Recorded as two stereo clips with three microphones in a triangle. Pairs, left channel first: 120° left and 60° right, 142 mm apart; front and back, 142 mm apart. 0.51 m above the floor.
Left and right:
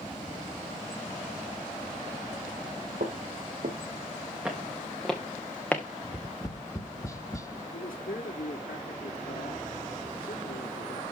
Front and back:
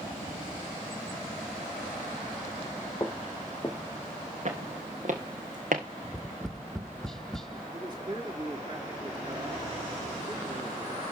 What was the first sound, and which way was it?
Footsteps, 65° right.